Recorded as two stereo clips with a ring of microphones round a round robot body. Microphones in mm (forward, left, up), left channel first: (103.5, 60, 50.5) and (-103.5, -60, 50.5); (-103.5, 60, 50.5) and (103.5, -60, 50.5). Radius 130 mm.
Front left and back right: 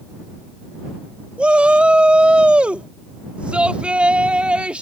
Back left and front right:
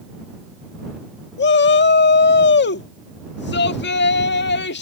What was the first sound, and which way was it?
A shout, 125° left.